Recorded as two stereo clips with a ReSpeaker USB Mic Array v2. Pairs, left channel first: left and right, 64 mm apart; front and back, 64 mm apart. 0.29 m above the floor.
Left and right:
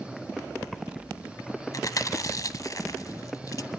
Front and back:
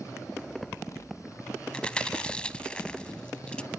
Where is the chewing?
70° left, 0.8 m.